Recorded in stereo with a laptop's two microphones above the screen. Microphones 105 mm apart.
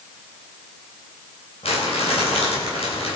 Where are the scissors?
No scissors in this recording.